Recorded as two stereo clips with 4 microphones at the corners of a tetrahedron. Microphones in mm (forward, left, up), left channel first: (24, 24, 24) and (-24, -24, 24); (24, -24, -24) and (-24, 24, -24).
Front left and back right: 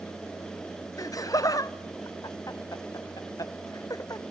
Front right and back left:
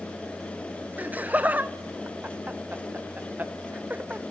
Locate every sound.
1.0 s laughter: 70° left, 0.7 m